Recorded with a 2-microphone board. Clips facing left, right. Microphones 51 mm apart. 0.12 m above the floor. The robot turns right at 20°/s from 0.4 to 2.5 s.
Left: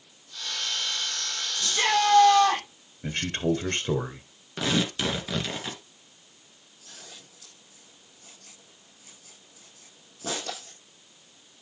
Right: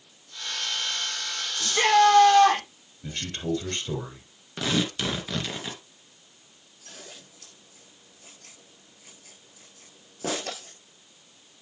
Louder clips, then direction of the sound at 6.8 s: Right 3 dB; 75° right (ahead or behind).